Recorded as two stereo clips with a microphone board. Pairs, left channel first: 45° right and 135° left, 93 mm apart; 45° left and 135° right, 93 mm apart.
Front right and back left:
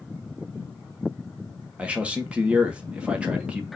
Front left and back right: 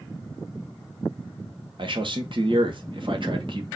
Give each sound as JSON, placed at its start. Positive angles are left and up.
{"t": 1.8, "sound": "a man speaking", "azimuth_deg": -150, "distance_m": 1.3}